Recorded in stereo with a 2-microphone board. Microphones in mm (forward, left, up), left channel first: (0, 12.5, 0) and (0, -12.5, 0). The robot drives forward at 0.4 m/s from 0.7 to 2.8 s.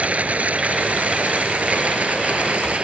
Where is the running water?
65° right (ahead or behind); by 2.9 s 55° right (ahead or behind).